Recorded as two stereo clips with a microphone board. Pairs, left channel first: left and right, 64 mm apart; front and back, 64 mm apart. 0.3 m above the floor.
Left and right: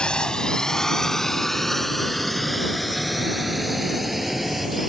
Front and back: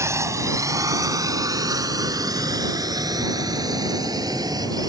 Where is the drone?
160° left; by 4.9 s 175° right.